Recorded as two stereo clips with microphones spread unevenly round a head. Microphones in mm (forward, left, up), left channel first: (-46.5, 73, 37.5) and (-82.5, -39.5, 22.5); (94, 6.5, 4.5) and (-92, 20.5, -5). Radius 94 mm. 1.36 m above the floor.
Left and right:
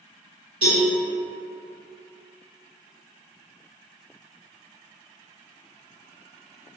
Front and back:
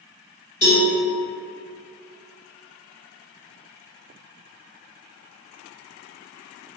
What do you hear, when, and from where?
0.6 s a cowbell: 60° right, 1.7 m